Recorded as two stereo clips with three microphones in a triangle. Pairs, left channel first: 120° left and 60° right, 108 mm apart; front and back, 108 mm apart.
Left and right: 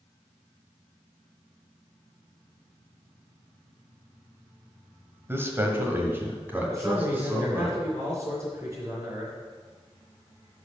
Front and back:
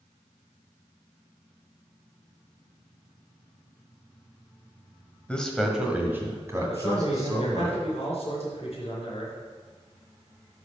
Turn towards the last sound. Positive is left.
turn(degrees=10)